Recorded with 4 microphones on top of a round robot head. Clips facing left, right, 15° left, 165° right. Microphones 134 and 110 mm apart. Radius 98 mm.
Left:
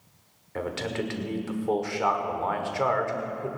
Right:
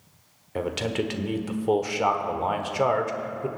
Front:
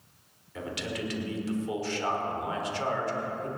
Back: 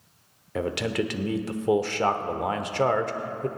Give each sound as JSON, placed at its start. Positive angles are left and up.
{"t": 0.6, "sound": "a man speaking", "azimuth_deg": -160, "distance_m": 1.3}